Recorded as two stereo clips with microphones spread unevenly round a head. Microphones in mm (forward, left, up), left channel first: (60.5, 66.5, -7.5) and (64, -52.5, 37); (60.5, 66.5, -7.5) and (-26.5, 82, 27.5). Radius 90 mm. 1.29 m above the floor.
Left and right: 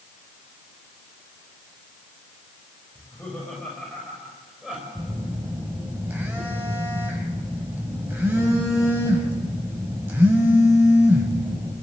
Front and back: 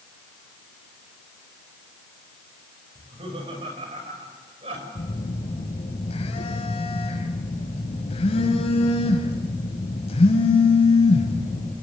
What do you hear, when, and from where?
3.0 s laughter: 175° left, 6.5 m; by 4.8 s 175° right, 6 m
5.0 s a phone buzzing: 20° right, 4 m